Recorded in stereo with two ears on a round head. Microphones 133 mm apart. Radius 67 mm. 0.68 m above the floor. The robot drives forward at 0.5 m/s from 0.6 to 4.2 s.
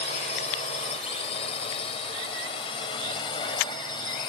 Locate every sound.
0.0 s a drone: 45° left (ahead or behind); by 4.3 s 30° left (ahead or behind)